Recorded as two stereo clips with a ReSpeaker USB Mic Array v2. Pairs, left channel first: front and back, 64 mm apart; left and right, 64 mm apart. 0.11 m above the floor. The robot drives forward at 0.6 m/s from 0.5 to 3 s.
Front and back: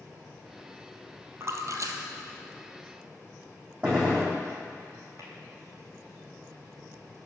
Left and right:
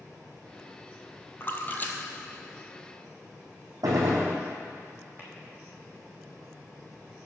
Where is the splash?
140° left, 0.8 m; by 3.2 s 165° left, 1.6 m.